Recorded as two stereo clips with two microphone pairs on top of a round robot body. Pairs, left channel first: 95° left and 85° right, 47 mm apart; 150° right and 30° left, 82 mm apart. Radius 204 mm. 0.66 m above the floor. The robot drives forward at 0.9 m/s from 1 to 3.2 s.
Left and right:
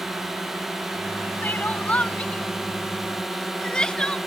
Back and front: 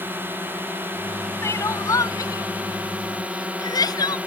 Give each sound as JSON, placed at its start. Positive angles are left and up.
{"t": 0.0, "sound": "a drone", "azimuth_deg": -15}
{"t": 1.4, "sound": "crying", "azimuth_deg": 145}